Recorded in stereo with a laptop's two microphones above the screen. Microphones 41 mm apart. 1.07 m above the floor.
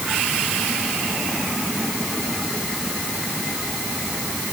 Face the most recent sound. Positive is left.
No sound to turn to.